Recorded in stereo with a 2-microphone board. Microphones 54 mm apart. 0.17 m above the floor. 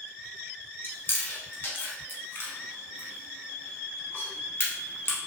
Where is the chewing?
40° left (ahead or behind), 0.8 m.